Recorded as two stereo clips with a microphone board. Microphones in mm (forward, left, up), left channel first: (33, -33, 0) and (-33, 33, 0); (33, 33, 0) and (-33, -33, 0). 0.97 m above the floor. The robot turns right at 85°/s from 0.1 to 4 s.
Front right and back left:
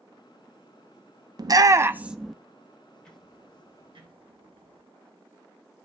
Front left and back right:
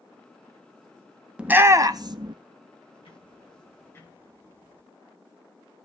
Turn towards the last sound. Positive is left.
turn(degrees=115)